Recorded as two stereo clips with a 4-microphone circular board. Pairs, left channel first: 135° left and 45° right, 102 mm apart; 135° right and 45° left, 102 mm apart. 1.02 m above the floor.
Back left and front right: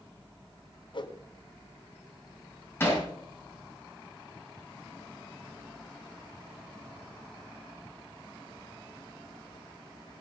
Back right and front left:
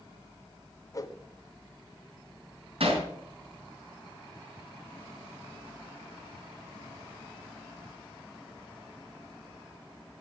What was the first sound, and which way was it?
A whoosh, 170° left.